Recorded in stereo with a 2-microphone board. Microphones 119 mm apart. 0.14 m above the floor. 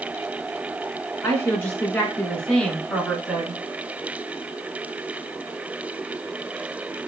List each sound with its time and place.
1.2 s a woman speaking: 25° left (ahead or behind), 1.7 m; by 3.6 s 5° right (ahead or behind), 1.7 m